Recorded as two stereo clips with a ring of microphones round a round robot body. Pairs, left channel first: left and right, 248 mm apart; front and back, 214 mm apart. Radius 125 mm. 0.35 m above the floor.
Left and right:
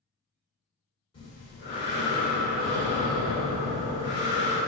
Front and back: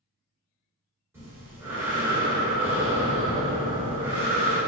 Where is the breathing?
115° left, 1.0 m.